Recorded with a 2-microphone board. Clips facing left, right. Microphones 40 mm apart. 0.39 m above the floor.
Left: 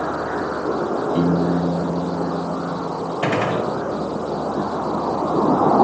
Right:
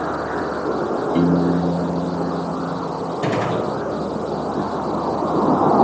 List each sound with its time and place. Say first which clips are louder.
1.1 s a piano: right 2 dB; 40° right (ahead or behind), 2.5 m
3.2 s a gunshot: left 1 dB; 50° left (ahead or behind), 0.7 m